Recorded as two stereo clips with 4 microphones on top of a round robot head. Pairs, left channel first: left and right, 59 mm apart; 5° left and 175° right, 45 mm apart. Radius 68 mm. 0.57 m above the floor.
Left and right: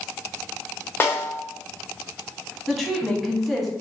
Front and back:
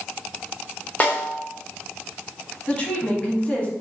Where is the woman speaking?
5° left, 1.2 m.